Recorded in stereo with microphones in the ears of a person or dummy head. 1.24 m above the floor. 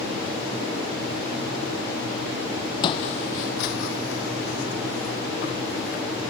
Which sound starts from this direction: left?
Footsteps, at 2.8 s.